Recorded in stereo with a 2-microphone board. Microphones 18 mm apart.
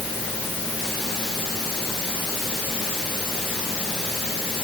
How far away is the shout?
No shout in this recording.